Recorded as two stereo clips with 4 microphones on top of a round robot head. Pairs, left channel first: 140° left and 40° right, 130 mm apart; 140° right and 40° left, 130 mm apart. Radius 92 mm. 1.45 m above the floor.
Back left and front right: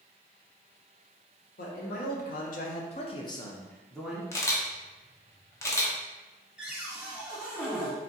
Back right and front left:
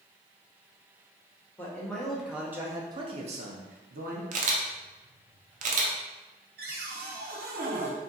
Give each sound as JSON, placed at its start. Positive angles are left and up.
{"t": 1.6, "sound": "a man speaking", "azimuth_deg": 140, "distance_m": 1.1}
{"t": 4.3, "sound": "a camera shutter", "azimuth_deg": 70, "distance_m": 0.6}
{"t": 6.6, "sound": "a cupboard door", "azimuth_deg": 45, "distance_m": 0.9}